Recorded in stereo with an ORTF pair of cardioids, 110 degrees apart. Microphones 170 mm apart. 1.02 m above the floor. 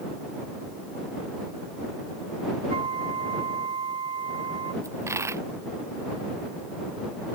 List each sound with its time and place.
2.7 s a flute: 35° right
4.8 s a dropped coin: 15° right